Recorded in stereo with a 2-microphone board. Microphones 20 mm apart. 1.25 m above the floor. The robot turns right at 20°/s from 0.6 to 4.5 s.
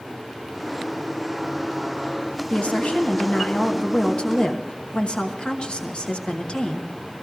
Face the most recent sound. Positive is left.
turn(degrees=120)